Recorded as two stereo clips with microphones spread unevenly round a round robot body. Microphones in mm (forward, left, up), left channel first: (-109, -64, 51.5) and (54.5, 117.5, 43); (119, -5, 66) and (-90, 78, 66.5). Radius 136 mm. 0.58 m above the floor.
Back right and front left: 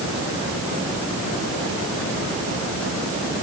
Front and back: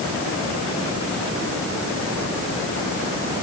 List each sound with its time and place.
Only background noise.